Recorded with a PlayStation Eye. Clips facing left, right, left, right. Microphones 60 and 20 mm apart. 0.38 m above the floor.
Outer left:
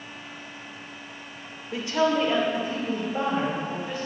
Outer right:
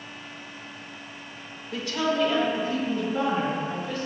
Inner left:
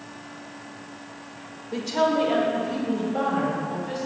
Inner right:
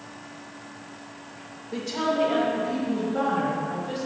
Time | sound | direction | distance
1.7 | a woman speaking | 20° left (ahead or behind) | 0.9 m